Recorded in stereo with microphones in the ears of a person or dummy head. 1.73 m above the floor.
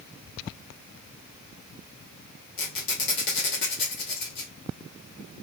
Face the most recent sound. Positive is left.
turn(degrees=60)  # may be behind; listen again after turning